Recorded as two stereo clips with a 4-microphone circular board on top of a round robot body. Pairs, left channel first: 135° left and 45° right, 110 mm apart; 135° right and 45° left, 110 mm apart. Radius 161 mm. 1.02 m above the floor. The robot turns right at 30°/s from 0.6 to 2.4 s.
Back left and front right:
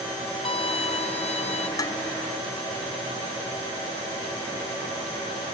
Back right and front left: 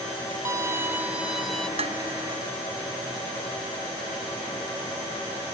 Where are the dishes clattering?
75° left; by 2.0 s 80° left.